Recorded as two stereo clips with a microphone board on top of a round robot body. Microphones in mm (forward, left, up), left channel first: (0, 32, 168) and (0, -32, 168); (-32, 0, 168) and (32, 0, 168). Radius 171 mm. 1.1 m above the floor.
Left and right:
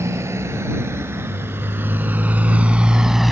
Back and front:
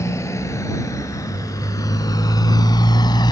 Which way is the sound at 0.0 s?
135° right.